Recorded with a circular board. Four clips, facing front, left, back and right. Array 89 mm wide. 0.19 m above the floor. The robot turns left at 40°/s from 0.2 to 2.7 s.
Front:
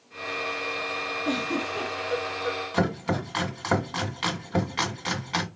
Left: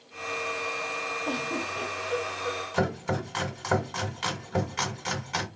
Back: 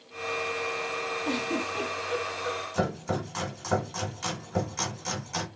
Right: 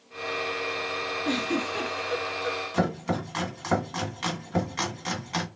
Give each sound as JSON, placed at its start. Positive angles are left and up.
{"t": 1.2, "sound": "a giggle", "azimuth_deg": -70, "distance_m": 2.5}
{"t": 2.7, "sound": "chopping", "azimuth_deg": 0, "distance_m": 1.9}